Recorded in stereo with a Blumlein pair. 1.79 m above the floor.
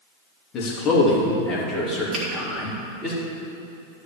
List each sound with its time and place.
0.5 s a man speaking: 30° left, 3 m; by 3.1 s 5° right, 4 m
2.1 s a finger snap: 15° right, 3 m